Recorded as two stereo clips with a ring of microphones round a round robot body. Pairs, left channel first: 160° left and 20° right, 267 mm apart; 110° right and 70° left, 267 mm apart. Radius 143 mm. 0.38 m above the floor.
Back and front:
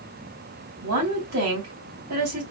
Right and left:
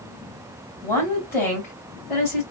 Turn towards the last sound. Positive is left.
turn(degrees=-35)